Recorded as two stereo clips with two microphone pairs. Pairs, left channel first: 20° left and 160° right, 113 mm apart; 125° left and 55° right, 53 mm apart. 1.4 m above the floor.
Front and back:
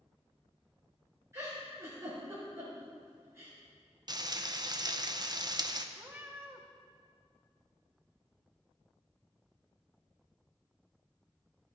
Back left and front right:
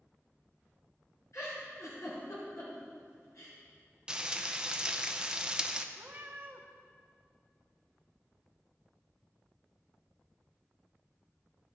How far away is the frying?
About 0.6 m.